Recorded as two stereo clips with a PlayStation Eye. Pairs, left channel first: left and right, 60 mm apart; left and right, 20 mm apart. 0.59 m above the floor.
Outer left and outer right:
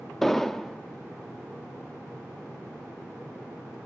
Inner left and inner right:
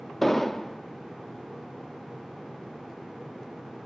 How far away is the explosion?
About 0.7 m.